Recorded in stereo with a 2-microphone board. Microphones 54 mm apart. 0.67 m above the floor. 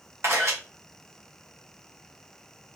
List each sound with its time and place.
0.2 s a camera shutter: 65° right (ahead or behind), 2.5 m